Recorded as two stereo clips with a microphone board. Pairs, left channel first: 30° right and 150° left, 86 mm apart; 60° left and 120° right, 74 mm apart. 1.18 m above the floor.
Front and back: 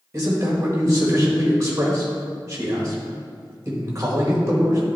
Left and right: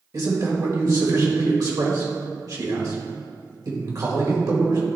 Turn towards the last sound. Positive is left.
turn(degrees=-155)